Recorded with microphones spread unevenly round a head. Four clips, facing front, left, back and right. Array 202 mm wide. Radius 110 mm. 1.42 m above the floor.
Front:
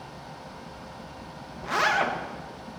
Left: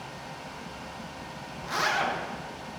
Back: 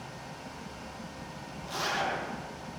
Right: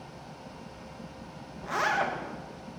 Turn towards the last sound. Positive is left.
turn(degrees=20)